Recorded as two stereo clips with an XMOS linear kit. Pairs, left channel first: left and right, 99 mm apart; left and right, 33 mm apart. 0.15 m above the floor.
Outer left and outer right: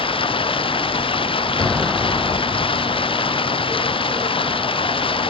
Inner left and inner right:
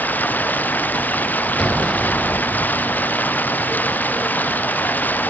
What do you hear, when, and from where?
0.0 s running water: 65° left (ahead or behind)
1.6 s an explosion: 5° left (ahead or behind)